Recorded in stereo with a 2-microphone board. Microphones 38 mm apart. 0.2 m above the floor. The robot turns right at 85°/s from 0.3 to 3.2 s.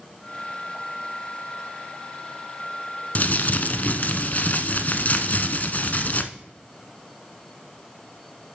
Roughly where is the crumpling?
Left.